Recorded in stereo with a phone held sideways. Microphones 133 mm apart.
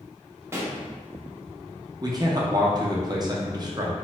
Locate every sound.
0.5 s a pop: 20° right (ahead or behind), 0.6 m
2.0 s a man speaking: 30° right (ahead or behind), 0.7 m